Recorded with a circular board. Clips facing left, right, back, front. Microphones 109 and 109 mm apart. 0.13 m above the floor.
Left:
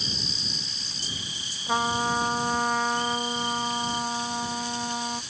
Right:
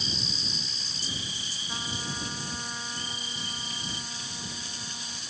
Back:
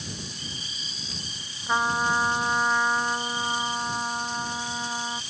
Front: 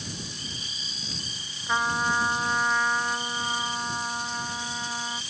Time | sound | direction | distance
1.7 | a trumpet | 105° left | ?